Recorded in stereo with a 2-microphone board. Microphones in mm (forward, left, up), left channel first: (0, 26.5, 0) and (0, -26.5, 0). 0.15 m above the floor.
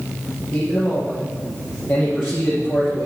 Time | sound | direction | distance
0.5 | a man speaking | 45° left (ahead or behind) | 5 m